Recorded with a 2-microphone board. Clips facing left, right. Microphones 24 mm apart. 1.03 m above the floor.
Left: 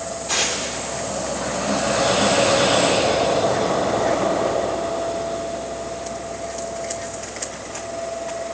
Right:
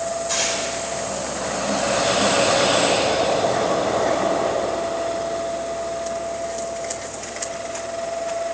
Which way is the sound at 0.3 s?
85° left.